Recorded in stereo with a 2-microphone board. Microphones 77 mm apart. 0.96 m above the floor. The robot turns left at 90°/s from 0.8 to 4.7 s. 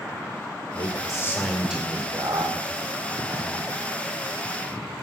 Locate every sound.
0.7 s a man speaking: 75° left, 2.5 m; by 3.7 s 175° left, 2.5 m